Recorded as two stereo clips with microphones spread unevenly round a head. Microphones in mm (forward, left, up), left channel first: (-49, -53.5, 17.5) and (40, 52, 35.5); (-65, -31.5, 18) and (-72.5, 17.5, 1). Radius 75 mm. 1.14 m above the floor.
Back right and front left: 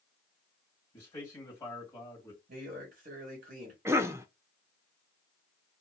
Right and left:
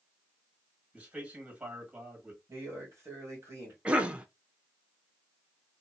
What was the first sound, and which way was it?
A man speaking, 155° left.